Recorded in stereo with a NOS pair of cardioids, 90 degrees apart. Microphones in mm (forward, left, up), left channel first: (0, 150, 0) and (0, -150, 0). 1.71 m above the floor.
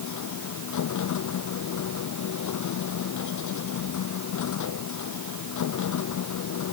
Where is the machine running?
65° left.